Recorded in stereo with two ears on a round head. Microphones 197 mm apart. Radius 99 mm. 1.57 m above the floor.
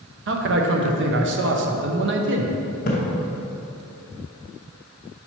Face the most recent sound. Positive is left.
turn(degrees=40)  # may be behind; listen again after turning